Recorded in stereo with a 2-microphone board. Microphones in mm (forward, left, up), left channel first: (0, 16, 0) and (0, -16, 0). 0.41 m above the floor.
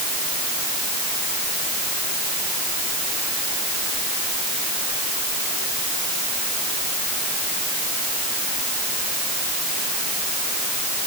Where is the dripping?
I don't hear dripping.